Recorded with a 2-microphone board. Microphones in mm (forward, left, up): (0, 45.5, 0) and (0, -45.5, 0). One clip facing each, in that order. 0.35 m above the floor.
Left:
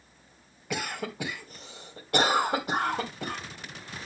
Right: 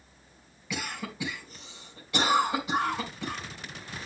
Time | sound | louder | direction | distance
0.7 | a cough | left 3 dB | 55° left (ahead or behind) | 2.5 m